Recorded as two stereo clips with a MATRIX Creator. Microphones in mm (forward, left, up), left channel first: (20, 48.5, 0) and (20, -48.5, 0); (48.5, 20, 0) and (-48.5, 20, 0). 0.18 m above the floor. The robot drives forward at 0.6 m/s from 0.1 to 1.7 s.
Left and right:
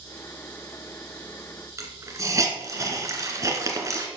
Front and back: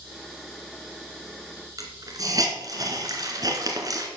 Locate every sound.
1.8 s a hiss: 140° right, 2 m